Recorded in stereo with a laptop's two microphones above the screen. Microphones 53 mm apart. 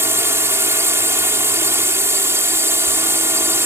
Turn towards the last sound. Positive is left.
turn(degrees=-70)  # may be behind; listen again after turning